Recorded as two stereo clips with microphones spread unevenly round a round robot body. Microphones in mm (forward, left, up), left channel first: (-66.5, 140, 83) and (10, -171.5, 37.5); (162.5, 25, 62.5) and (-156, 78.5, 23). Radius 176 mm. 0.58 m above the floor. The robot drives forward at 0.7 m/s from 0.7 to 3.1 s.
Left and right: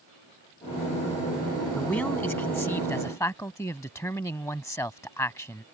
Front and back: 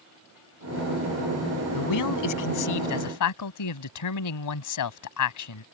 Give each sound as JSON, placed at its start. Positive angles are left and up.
{"t": 1.7, "sound": "a man speaking", "azimuth_deg": 20}